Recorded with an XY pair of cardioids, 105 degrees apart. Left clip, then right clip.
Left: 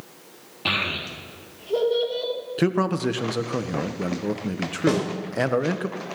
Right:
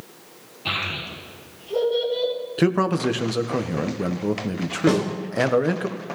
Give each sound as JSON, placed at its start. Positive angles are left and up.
{"t": 0.7, "sound": "a child speaking", "azimuth_deg": 60, "distance_m": 2.0}
{"t": 2.6, "sound": "a man speaking", "azimuth_deg": -10, "distance_m": 0.9}
{"t": 4.9, "sound": "a snare drum", "azimuth_deg": 5, "distance_m": 4.0}